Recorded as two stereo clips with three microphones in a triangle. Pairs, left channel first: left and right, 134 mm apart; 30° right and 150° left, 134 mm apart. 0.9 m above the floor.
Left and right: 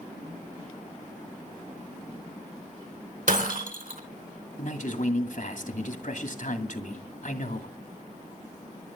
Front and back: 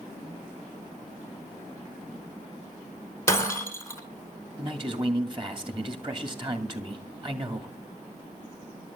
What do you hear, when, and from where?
3.3 s breaking glass: 100° right, 3 m
4.6 s a man speaking: 100° left, 2 m